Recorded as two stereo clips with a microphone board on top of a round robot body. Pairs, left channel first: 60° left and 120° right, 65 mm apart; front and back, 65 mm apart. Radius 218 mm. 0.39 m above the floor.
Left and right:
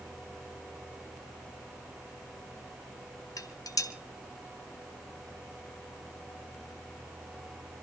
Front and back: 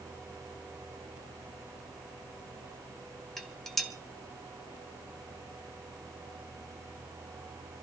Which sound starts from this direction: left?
Dishes clattering, at 3.4 s.